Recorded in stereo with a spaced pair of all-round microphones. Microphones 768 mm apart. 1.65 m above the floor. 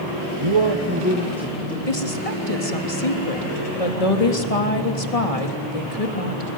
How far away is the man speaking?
About 1.5 m.